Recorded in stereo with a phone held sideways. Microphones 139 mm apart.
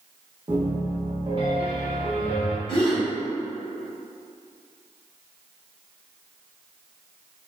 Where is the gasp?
30° left (ahead or behind), 1.9 m.